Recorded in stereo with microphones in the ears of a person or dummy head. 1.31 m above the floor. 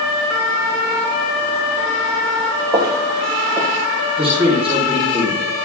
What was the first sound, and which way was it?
Footsteps, 20° right (ahead or behind).